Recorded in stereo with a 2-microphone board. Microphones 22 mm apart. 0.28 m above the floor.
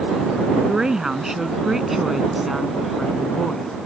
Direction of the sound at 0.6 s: 30° right (ahead or behind).